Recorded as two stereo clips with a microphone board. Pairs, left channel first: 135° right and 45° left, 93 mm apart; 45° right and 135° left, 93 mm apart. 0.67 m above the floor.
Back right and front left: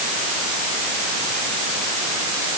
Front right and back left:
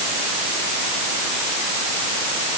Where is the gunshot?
No gunshot in this recording.